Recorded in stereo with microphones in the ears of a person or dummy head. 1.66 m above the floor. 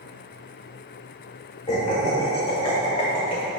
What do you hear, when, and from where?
1.7 s laughter: 25° left (ahead or behind), 2.5 m; by 3.6 s 30° left (ahead or behind), 3 m